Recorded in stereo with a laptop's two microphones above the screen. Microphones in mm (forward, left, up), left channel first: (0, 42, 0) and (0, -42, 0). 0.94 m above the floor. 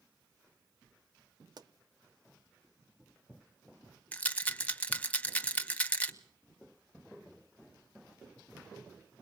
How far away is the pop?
About 0.9 m.